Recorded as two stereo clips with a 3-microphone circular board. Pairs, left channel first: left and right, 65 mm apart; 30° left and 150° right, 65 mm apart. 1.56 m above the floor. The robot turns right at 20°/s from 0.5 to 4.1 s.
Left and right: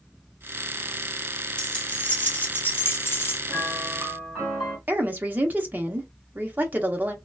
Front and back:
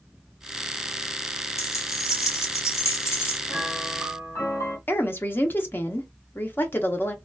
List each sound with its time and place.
1.6 s keys jangling: 20° left, 0.7 m; by 3.4 s 55° left, 0.7 m
3.5 s a piano: 20° right, 1.8 m; by 4.8 s 10° right, 1.8 m
4.9 s a woman speaking: 30° right, 0.7 m